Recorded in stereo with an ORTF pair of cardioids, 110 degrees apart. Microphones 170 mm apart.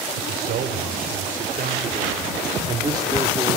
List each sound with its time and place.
0.2 s a man speaking: 65° right, 4.5 m; by 3.6 s 10° right, 3 m